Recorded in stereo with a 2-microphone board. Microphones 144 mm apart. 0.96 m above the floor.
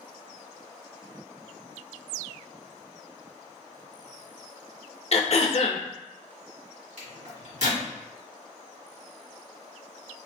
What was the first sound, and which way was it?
Throat clearing, 55° left (ahead or behind).